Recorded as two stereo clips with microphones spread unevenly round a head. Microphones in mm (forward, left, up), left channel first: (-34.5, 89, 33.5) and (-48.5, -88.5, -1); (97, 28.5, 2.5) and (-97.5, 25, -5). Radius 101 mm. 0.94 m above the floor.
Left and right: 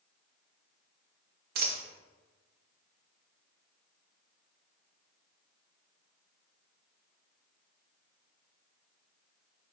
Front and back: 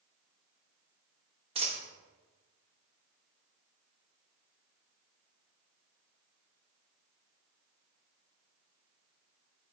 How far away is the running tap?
No running tap in this recording.